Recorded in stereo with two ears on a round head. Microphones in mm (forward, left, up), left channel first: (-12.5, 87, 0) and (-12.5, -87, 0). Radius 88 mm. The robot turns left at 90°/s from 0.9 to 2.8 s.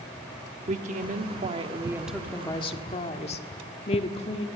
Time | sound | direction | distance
0.7 | a woman speaking | 70° right | 1.4 m